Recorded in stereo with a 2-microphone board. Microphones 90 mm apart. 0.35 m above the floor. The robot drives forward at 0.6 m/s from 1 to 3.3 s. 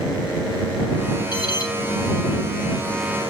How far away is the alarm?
About 3 m.